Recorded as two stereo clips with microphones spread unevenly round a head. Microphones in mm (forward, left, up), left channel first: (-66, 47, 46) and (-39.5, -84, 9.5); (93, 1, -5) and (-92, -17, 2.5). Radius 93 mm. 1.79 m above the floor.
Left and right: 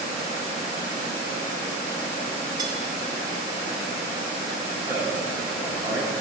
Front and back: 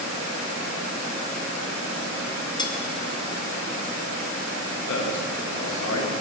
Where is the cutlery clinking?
5° right, 0.9 m.